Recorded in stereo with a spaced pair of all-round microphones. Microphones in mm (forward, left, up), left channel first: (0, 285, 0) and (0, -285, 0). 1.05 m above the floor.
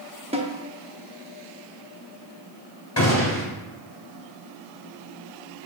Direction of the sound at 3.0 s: 25° left (ahead or behind).